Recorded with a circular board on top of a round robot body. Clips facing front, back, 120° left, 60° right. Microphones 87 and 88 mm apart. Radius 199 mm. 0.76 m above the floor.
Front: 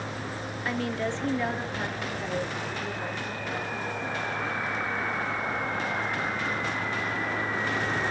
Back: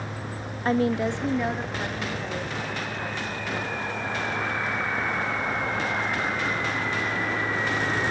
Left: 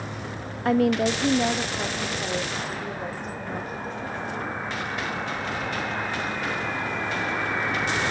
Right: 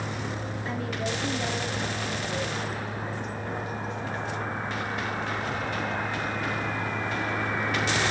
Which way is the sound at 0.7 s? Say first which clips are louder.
Back 7 dB, left 12 dB; 130° left.